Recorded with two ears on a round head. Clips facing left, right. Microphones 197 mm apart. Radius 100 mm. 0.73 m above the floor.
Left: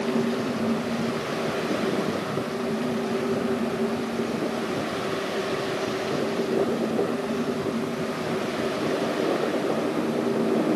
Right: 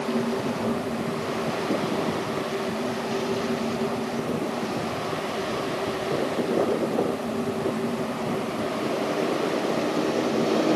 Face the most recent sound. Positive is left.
No sound to turn to.